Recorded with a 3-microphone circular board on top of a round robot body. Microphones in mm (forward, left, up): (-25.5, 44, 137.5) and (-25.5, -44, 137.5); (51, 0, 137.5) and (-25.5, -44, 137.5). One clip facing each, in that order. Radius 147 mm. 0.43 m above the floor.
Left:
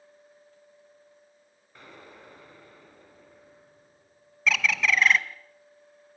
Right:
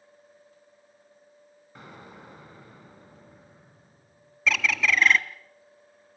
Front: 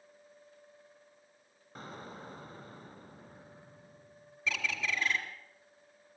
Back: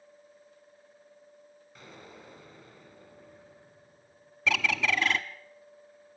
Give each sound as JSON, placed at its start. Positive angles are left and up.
{"t": 1.8, "sound": "an explosion", "azimuth_deg": -15, "distance_m": 3.5}
{"t": 4.5, "sound": "a bird", "azimuth_deg": 180, "distance_m": 1.1}